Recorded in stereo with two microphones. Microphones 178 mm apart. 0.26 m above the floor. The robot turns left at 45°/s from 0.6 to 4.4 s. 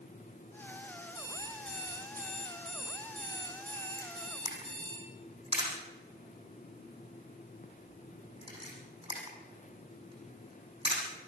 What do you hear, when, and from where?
1.1 s an alarm clock: straight ahead, 5.5 m; by 5.0 s 150° right, 5.5 m
4.0 s a camera shutter: 55° right (ahead or behind), 6 m; by 11.0 s 35° right (ahead or behind), 6 m